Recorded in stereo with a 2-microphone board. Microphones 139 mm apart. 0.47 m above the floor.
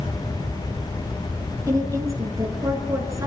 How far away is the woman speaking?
About 6 m.